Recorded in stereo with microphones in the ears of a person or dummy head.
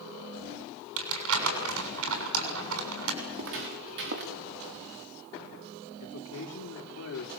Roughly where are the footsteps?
Right.